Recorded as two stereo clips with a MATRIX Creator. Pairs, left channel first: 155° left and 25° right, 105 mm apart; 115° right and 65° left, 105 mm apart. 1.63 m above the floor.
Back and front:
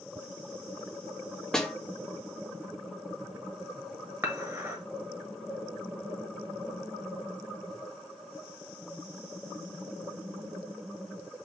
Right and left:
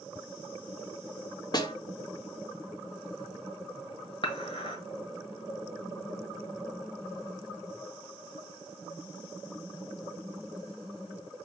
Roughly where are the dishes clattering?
Right.